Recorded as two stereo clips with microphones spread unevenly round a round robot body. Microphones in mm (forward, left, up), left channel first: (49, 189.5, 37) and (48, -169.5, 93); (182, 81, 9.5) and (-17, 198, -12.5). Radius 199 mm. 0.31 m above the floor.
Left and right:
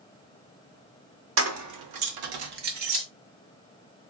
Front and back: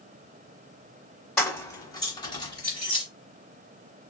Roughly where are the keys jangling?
Behind right.